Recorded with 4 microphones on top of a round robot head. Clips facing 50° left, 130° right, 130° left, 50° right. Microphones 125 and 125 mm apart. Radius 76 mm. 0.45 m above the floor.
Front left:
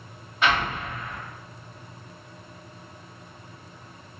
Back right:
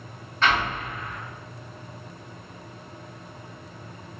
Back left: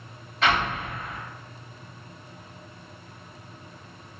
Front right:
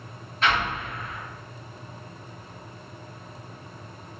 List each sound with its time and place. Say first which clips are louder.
0.4 s an explosion: even, back left 1 dB; 125° left, 1.7 m